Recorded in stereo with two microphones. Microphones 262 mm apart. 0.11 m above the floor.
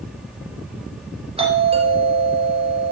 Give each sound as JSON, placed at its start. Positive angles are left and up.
{"t": 1.4, "sound": "a doorbell", "side_deg": -20, "distance_m": 3.0}